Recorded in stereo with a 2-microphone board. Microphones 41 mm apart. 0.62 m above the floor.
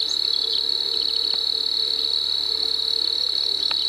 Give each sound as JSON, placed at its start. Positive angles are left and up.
{"t": 0.0, "sound": "an insect", "side_deg": 5}